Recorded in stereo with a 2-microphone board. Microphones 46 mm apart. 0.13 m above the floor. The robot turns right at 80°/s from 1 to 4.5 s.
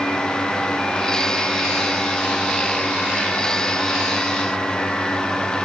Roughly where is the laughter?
No laughter in this recording.